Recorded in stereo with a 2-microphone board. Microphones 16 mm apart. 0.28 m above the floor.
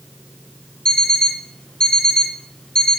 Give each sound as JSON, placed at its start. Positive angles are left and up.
{"t": 0.8, "sound": "an alarm clock", "side_deg": 70, "distance_m": 2.0}